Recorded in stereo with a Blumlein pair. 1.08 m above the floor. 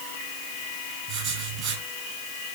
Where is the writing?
35° right, 8.5 m.